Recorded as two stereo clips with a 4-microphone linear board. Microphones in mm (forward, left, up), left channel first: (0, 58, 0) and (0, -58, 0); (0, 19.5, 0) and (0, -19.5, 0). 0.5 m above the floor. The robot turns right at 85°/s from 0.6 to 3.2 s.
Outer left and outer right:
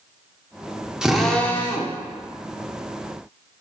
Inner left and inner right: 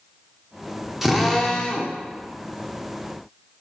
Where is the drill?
15° right, 1.4 m; by 2.0 s 70° left, 1.4 m.